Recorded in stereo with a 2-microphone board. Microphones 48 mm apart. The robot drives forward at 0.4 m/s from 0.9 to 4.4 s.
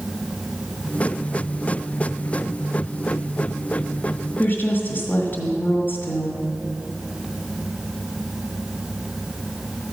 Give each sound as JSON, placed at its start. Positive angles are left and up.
{"t": 4.4, "sound": "a woman speaking", "side_deg": 40, "distance_m": 1.5}